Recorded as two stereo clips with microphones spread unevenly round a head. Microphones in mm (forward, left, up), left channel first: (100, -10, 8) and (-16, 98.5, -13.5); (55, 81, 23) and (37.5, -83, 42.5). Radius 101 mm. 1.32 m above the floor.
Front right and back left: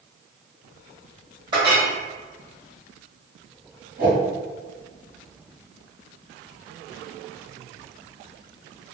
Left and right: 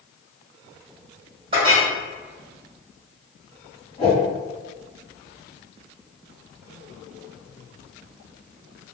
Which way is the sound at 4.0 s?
145° left.